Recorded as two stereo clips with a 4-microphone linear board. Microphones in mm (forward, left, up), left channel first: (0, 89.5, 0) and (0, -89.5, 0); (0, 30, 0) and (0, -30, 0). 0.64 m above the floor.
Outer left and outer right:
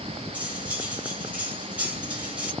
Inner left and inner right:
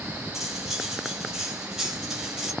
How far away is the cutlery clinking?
About 2 m.